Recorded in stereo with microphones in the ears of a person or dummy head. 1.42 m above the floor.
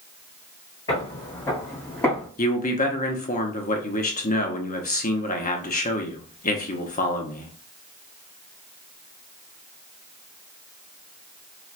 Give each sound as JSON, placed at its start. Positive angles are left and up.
{"t": 0.9, "sound": "footsteps", "side_deg": 25, "distance_m": 1.5}
{"t": 2.4, "sound": "a man speaking", "side_deg": 35, "distance_m": 0.8}